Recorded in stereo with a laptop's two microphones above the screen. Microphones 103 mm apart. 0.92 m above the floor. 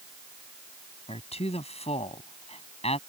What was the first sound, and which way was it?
A man speaking, 85° left.